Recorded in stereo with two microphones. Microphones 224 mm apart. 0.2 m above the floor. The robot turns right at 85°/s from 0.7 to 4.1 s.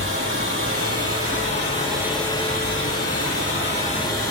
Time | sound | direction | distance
0.0 | running water | 120° right | 4.5 m